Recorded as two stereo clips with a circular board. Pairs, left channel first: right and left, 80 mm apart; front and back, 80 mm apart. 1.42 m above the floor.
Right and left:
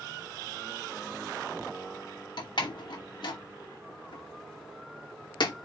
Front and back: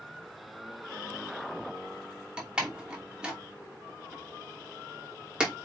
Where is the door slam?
105° right, 2.5 m.